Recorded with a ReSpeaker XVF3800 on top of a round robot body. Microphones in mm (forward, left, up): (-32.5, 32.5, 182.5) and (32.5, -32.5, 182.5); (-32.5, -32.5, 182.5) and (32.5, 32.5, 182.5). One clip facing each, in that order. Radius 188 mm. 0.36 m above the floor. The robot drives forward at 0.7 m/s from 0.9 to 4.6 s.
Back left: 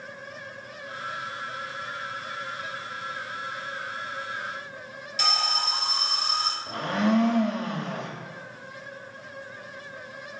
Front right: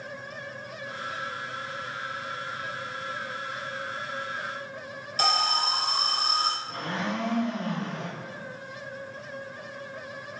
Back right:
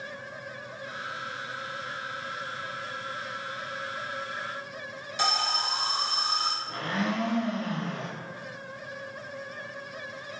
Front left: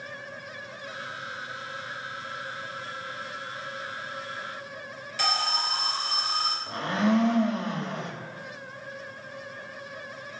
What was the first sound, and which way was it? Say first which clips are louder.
An alarm: front right 3 dB, even; 70° right.